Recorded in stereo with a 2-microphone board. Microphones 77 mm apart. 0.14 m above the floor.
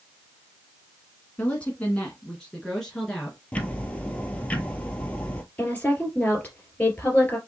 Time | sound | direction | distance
1.4 | a woman speaking | 20° left (ahead or behind) | 1.2 m
3.5 | ticking | 20° left (ahead or behind) | 0.9 m
5.6 | a woman speaking | 20° left (ahead or behind) | 2.5 m